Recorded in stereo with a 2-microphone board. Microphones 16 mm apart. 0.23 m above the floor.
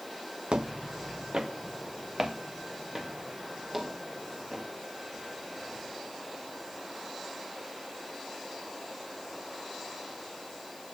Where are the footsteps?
60° right (ahead or behind), 0.8 m; by 4.7 s 30° right (ahead or behind), 5 m.